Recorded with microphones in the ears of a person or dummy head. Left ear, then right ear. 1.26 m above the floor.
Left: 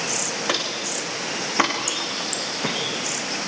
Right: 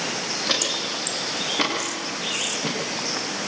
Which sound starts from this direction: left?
Footsteps, at 0.5 s.